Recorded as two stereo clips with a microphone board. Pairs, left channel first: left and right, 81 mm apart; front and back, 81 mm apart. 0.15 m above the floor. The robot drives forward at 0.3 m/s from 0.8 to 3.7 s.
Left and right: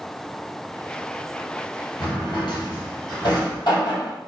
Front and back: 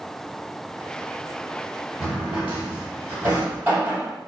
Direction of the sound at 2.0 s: 100° left.